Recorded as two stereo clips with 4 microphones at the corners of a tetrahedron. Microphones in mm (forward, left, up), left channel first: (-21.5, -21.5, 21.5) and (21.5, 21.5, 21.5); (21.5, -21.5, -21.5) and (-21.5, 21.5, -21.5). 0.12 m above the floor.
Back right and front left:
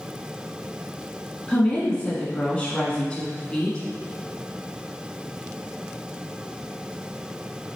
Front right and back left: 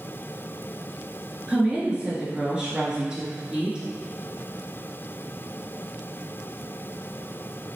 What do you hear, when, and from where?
1.5 s a woman speaking: 175° right, 1.1 m